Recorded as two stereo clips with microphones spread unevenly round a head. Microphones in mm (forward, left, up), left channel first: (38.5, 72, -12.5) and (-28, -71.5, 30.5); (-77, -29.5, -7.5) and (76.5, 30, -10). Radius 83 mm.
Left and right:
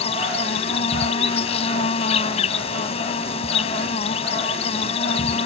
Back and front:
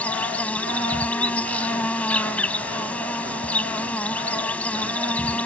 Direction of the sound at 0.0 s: 125° left.